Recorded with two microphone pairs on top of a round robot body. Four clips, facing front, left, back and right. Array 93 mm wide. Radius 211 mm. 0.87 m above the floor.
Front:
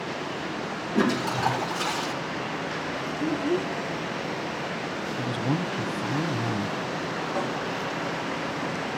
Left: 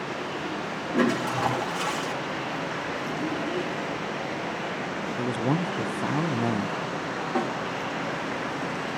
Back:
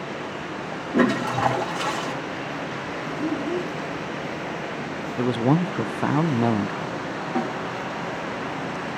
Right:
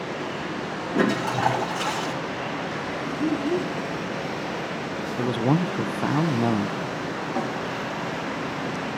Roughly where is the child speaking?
Behind left.